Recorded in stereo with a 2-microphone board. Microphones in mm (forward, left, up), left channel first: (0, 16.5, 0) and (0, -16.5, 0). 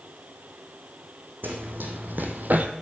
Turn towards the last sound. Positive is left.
turn(degrees=-55)  # may be behind; listen again after turning